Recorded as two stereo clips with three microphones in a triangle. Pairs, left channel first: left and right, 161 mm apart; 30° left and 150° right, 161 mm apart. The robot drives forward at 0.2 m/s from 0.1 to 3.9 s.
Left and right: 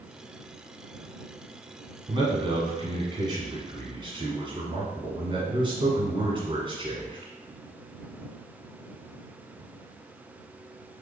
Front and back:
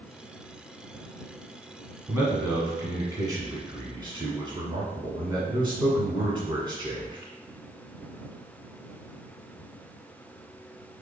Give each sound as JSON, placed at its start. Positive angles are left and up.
{"t": 2.1, "sound": "a man speaking", "azimuth_deg": -95, "distance_m": 1.4}